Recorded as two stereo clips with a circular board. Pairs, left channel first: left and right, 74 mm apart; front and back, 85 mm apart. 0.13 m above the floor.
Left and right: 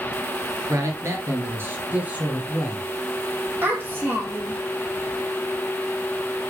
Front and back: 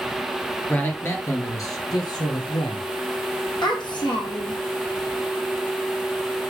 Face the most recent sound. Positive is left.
turn(degrees=-30)